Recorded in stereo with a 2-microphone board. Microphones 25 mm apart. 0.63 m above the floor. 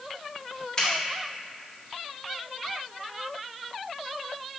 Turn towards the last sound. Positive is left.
turn(degrees=30)  # may be behind; listen again after turning